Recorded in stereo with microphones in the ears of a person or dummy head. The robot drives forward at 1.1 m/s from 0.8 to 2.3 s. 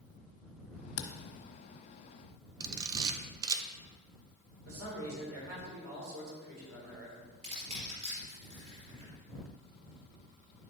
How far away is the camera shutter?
About 0.9 m.